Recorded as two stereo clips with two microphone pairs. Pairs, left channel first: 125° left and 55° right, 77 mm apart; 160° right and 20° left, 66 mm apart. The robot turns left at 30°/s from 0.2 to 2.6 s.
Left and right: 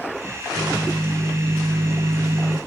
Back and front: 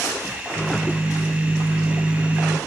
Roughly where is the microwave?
Ahead right.